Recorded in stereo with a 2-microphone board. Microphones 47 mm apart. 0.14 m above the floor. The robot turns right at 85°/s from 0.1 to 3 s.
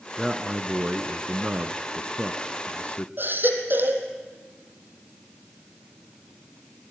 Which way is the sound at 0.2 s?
175° right.